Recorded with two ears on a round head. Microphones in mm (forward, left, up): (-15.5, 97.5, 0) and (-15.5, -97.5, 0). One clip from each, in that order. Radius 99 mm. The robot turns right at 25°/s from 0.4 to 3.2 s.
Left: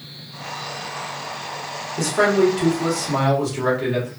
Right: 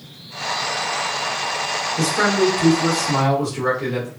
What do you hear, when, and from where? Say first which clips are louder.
2.0 s a man speaking: left 2 dB; 135° left, 1.2 m; by 4.1 s 170° left, 1.2 m